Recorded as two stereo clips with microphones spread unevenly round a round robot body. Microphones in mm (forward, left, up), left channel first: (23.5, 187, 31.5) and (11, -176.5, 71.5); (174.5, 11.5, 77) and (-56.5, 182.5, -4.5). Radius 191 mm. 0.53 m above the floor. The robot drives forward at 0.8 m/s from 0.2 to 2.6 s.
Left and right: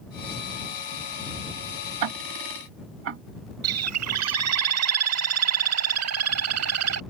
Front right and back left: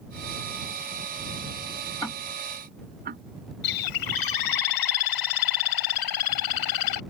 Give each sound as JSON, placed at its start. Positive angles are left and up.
{"t": 2.0, "sound": "ticking", "azimuth_deg": -95}
{"t": 3.6, "sound": "a bird", "azimuth_deg": -40}